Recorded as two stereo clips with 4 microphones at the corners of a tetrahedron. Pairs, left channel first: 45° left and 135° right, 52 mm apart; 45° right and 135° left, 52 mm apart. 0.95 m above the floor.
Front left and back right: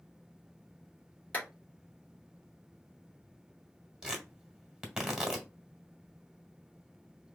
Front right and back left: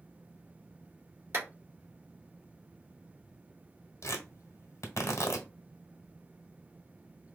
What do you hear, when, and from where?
1.3 s a clap: 105° left, 2 m
4.0 s tearing paper: 65° right, 1.5 m